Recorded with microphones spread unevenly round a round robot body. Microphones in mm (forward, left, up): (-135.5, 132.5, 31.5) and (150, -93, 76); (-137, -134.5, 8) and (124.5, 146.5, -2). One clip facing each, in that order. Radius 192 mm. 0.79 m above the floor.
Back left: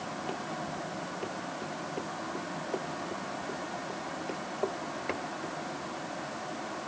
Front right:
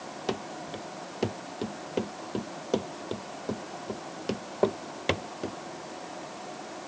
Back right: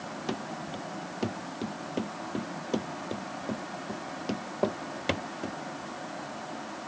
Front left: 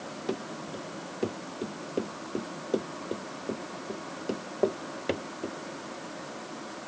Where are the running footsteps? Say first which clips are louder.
Front right 7 dB, front left 2 dB; 65° right; by 5.6 s 75° right.